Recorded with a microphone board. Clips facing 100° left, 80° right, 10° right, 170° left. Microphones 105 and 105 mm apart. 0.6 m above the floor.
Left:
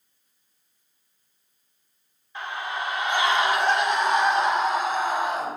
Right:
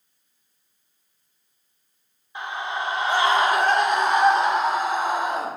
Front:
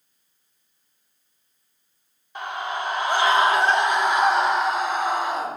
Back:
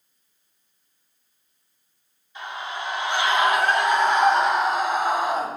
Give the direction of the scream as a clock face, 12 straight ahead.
12 o'clock.